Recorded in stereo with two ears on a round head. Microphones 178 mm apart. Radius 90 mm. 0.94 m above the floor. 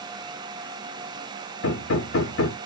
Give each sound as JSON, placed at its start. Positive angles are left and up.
{"t": 1.6, "sound": "hammering", "side_deg": 65, "distance_m": 0.8}